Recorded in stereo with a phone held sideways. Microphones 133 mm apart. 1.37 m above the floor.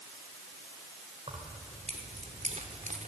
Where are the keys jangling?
45° right (ahead or behind), 4 m; by 3.1 s 70° right (ahead or behind), 2.5 m.